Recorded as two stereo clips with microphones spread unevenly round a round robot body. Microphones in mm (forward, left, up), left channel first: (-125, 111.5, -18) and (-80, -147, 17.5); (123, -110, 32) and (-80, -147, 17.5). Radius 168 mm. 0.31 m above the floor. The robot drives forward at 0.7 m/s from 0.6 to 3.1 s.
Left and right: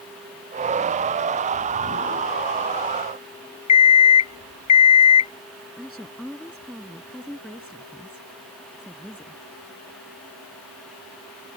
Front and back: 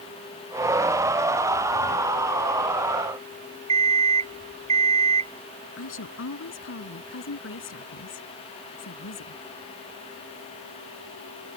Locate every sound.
3.7 s an alarm clock: 120° left
5.8 s a woman speaking: 10° left